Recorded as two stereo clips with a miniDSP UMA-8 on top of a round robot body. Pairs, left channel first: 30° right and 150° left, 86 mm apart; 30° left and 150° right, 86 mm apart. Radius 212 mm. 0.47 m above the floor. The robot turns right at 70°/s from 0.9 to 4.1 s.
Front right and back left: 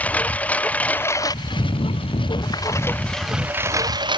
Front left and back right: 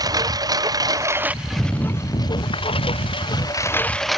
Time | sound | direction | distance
0.0 | a lawn mower | 105° right | ?